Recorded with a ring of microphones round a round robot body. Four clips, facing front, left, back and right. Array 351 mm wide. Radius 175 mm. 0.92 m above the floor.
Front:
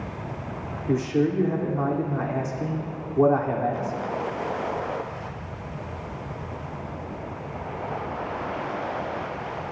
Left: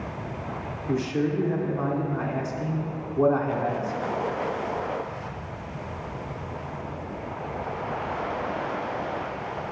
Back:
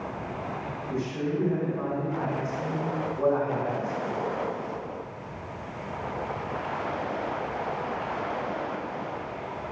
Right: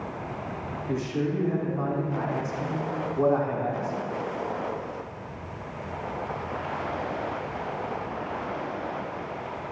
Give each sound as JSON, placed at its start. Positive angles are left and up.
{"t": 0.9, "sound": "a man speaking", "azimuth_deg": 10, "distance_m": 3.0}